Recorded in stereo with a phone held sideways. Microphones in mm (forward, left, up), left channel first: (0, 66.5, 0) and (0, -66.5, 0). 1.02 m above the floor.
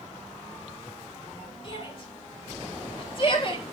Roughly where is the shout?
Left.